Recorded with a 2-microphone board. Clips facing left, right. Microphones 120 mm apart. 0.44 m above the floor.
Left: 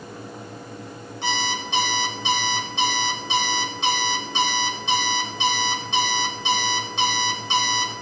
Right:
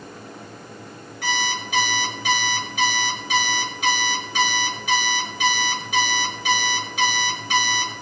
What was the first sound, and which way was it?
An alarm clock, 25° left (ahead or behind).